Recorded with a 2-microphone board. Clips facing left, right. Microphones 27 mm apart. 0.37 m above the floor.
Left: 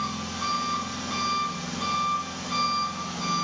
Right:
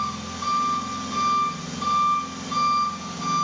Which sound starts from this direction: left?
An engine running, at 0.0 s.